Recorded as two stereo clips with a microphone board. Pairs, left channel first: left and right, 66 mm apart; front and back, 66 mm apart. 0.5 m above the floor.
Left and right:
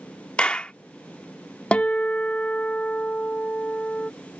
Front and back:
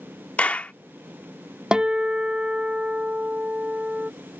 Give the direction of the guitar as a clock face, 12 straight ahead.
8 o'clock.